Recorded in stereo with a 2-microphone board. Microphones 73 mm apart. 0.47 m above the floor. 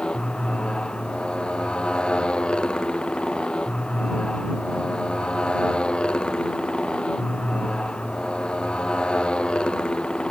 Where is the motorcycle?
15° left (ahead or behind).